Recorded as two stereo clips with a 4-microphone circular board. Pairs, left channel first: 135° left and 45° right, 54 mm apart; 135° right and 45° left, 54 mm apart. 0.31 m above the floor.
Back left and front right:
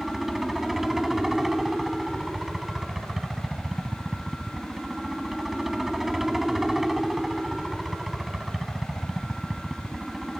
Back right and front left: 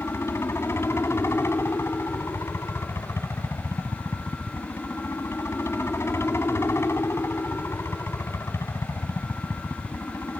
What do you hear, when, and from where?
0.0 s a helicopter: 130° right